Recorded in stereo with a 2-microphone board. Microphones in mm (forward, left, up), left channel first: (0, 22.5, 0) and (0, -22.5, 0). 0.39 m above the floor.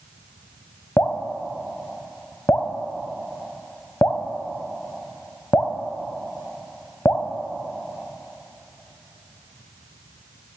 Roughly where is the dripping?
Left.